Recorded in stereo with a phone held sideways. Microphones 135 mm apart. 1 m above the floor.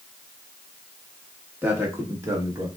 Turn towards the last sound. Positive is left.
turn(degrees=-25)  # may be behind; listen again after turning